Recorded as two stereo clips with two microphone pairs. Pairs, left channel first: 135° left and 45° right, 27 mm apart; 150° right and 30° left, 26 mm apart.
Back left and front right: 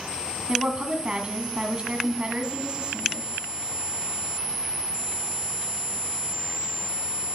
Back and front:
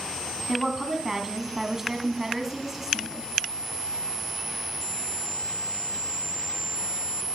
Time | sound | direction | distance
0.5 | a woman speaking | 40° right | 2.0 m